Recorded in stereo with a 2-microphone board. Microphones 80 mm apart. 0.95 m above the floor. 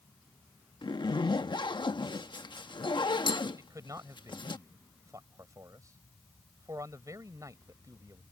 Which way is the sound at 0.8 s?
75° left (ahead or behind).